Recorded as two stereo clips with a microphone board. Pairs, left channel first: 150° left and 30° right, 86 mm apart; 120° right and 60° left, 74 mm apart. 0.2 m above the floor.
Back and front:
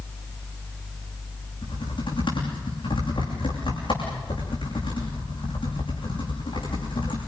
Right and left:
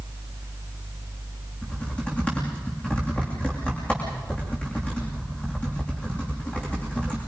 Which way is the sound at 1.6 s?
170° left.